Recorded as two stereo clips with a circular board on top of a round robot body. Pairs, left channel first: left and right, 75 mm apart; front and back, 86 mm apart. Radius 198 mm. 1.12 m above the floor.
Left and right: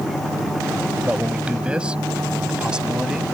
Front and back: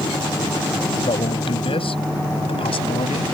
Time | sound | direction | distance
1.0 | a man speaking | 15° right | ?